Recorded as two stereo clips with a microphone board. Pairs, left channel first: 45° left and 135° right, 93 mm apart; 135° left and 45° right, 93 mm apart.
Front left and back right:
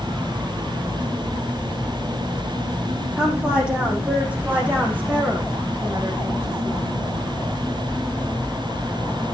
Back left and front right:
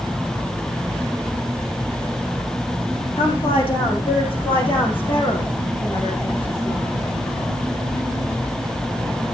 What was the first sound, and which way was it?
A woman speaking, 145° left.